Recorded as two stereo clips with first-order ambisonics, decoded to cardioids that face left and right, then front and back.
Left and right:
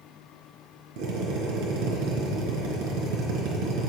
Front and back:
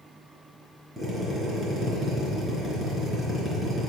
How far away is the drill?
About 4 m.